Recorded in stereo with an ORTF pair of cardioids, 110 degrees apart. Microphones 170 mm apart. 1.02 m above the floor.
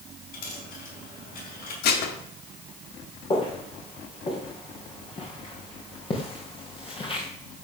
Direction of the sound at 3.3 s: 30° left.